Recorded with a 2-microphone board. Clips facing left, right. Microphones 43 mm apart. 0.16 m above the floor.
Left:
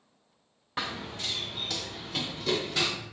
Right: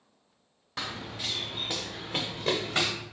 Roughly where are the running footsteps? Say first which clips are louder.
Left 2 dB; centre.